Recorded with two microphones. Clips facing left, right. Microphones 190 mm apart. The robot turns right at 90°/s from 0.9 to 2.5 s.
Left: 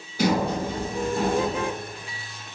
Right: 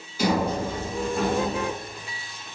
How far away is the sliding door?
About 1.0 m.